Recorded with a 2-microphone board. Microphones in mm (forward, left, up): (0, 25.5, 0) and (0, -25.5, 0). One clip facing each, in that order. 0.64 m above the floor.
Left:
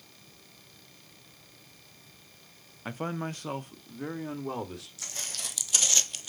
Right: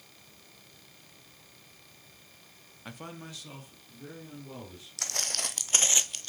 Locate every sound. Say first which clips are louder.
2.9 s a man speaking: left 9 dB; 20° left (ahead or behind), 0.5 m; by 4.9 s 70° left (ahead or behind), 1.4 m
5.0 s footsteps: right 9 dB; 65° right (ahead or behind), 1.3 m; by 6.3 s 15° left (ahead or behind), 0.6 m